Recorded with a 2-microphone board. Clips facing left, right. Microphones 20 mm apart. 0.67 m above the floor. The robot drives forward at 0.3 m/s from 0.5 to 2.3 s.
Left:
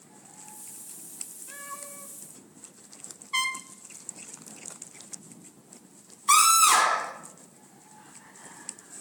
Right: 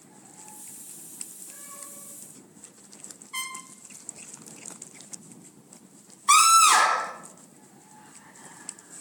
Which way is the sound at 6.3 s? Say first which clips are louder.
Right 2 dB; 10° right (ahead or behind).